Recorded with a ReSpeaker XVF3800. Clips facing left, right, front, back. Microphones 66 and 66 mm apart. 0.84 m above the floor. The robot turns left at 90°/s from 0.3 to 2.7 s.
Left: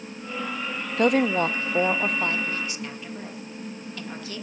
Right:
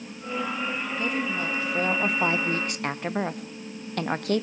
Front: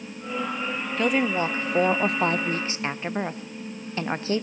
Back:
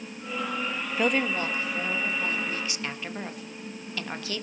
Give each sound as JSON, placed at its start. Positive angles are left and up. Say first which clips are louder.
{"t": 1.0, "sound": "a woman speaking", "louder": "left 11 dB, front 3 dB", "azimuth_deg": 100, "distance_m": 0.6}